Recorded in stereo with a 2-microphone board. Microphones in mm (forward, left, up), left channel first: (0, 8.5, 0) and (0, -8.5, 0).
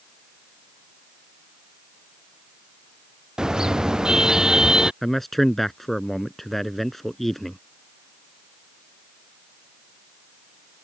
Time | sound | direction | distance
3.4 | a car horn | 45° right (ahead or behind) | ?
5.0 | a man speaking | 10° left (ahead or behind) | ?